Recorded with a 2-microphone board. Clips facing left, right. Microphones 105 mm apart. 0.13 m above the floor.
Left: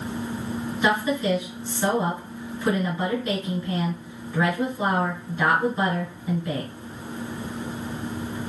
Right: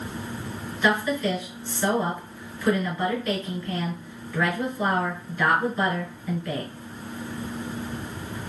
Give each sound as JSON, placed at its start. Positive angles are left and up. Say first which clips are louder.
{"t": 0.8, "sound": "a woman speaking", "louder": "even", "side_deg": 25, "distance_m": 2.0}